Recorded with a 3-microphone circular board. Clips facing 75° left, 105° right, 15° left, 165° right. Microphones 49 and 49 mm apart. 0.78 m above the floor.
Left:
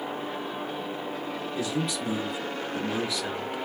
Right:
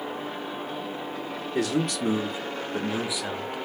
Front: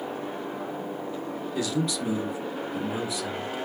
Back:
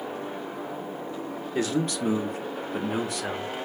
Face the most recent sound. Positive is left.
turn(degrees=165)